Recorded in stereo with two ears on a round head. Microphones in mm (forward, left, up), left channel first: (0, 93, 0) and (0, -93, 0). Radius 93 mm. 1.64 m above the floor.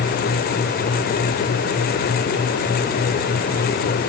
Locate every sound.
Only background noise.